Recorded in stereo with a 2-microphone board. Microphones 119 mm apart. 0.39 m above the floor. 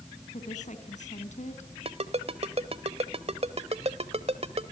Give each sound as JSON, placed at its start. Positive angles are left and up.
{"t": 0.3, "sound": "a woman speaking", "side_deg": 75, "distance_m": 3.5}
{"t": 1.9, "sound": "a ringtone", "side_deg": -55, "distance_m": 1.2}